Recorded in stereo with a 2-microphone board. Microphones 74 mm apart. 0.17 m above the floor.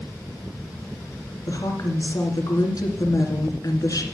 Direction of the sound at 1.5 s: 50° left (ahead or behind).